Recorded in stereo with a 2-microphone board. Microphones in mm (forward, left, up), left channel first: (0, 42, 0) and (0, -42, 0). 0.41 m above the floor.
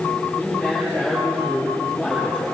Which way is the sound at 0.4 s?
10° right (ahead or behind).